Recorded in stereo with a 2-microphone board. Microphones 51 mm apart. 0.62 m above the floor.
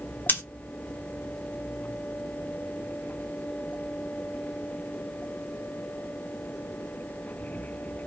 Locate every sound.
0.3 s scissors: 40° left (ahead or behind), 1.3 m